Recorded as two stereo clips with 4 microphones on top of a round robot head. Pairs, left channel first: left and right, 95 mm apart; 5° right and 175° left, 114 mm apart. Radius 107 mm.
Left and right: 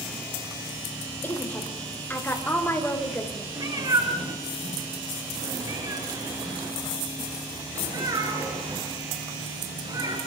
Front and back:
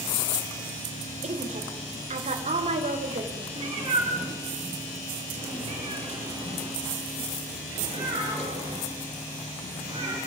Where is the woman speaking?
160° left, 3.5 m.